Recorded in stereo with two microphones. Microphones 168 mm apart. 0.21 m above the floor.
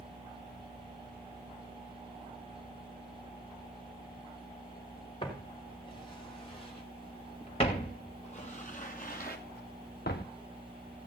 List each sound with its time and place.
5.2 s footsteps: 30° left (ahead or behind), 6 m; by 10.3 s 85° left, 1.5 m